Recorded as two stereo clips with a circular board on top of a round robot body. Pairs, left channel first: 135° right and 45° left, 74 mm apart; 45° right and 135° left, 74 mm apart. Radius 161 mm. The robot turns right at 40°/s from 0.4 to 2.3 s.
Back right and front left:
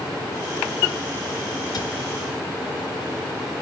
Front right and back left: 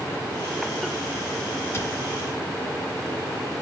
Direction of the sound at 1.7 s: 100° right.